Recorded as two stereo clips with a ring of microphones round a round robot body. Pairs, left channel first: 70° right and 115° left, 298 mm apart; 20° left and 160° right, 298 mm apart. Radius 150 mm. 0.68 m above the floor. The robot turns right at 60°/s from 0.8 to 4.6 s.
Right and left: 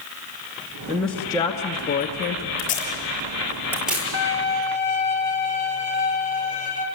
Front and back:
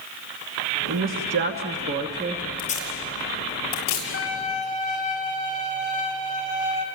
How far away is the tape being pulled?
About 7 m.